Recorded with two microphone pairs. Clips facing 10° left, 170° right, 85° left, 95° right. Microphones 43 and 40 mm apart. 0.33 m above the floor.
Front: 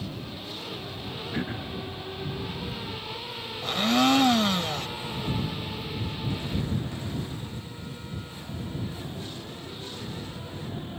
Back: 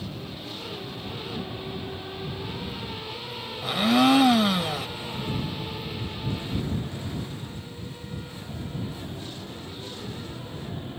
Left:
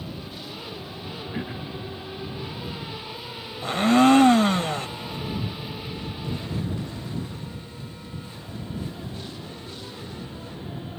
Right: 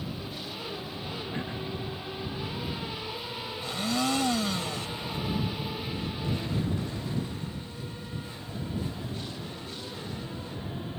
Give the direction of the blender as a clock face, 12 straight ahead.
8 o'clock.